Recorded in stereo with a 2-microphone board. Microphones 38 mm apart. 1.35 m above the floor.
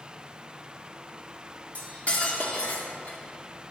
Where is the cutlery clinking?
40° left (ahead or behind), 1.7 m.